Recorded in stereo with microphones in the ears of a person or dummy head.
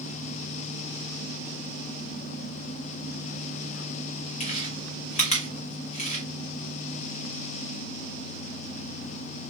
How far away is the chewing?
About 1.0 m.